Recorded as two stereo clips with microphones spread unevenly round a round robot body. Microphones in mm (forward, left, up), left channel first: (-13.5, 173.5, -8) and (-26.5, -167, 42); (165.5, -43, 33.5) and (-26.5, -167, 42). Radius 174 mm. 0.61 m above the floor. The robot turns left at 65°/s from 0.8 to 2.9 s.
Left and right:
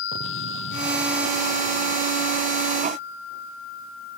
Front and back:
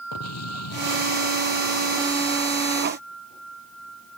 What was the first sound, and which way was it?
An explosion, 30° left.